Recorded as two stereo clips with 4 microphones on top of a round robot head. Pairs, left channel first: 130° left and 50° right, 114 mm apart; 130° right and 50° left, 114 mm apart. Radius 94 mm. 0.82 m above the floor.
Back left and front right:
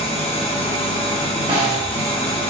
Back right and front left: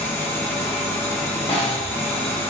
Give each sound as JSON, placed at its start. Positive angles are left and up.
{"t": 0.0, "sound": "an engine running", "azimuth_deg": 160, "distance_m": 1.1}
{"t": 1.5, "sound": "a snare drum", "azimuth_deg": -90, "distance_m": 1.4}